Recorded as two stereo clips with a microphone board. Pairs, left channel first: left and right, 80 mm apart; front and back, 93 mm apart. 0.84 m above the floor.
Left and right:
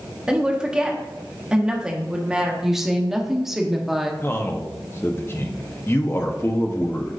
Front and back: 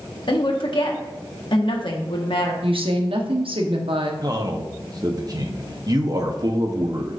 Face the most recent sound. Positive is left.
turn(degrees=145)